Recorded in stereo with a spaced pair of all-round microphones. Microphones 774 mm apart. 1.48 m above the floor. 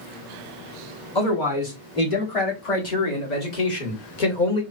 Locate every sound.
1.1 s a man speaking: 35° left (ahead or behind), 2 m; by 4.6 s 75° left (ahead or behind), 1.2 m